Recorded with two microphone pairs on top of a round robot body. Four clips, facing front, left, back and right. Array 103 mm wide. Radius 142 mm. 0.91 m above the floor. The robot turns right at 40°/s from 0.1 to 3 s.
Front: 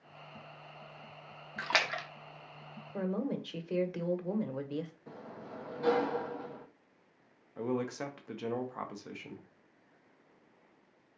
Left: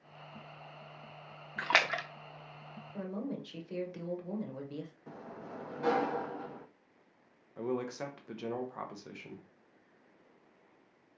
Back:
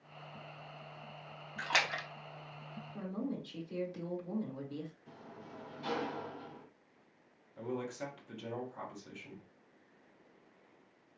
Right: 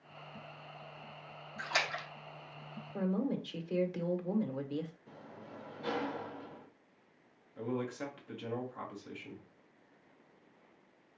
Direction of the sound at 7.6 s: 35° left.